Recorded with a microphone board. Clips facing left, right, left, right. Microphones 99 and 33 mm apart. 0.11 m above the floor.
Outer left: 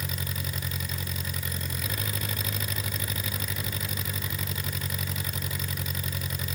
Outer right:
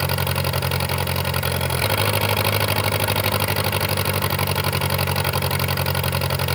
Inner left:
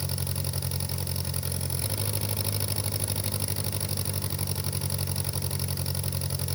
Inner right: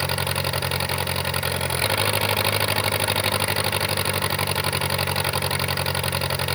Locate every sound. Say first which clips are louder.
0.0 s an engine running: outer right 13 dB, inner right 11 dB; 70° right (ahead or behind)